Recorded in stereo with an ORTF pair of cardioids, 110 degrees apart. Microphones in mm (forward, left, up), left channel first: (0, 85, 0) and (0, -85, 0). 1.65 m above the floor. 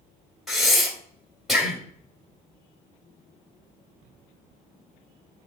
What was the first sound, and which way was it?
Breathing, straight ahead.